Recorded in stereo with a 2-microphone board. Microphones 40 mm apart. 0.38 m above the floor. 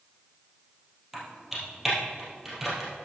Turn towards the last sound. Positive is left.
turn(degrees=-5)  # may be behind; listen again after turning